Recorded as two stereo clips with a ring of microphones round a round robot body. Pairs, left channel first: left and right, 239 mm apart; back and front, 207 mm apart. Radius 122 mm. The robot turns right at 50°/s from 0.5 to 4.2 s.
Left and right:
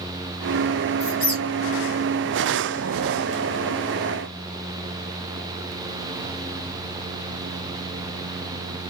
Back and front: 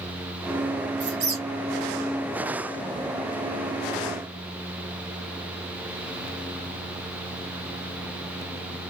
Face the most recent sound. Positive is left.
turn(degrees=-175)